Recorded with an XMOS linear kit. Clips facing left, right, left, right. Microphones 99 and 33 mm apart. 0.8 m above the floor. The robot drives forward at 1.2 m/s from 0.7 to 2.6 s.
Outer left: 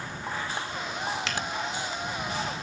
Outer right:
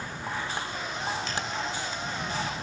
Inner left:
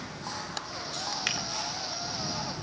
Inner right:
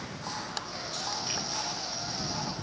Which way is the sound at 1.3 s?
80° left.